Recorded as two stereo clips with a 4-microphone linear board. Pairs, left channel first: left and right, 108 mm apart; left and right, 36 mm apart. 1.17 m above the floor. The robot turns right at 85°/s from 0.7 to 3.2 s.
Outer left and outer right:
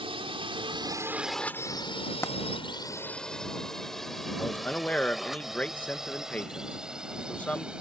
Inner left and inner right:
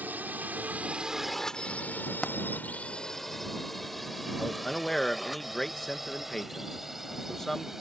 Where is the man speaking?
10° left (ahead or behind).